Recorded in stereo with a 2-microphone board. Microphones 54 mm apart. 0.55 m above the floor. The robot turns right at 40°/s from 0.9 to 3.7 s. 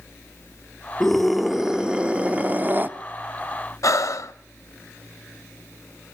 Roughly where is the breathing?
Left.